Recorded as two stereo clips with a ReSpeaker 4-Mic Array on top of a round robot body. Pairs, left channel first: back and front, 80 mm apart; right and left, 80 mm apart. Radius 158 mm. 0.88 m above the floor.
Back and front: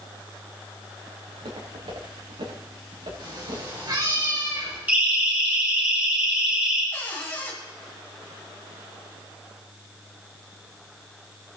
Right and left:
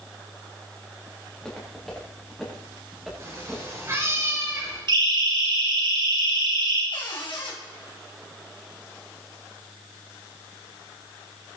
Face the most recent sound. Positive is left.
turn(degrees=-115)